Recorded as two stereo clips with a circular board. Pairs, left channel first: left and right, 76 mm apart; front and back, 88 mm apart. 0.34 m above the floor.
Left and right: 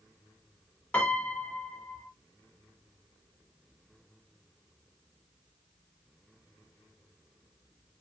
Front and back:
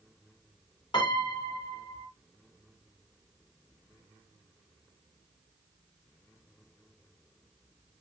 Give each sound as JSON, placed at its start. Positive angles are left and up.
{"t": 0.9, "sound": "a piano", "azimuth_deg": 20, "distance_m": 1.3}